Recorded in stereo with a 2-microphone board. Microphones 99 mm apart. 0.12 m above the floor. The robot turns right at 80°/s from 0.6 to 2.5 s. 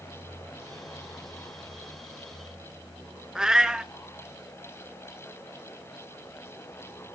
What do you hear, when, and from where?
3.4 s a cat meowing: 5° right (ahead or behind), 0.5 m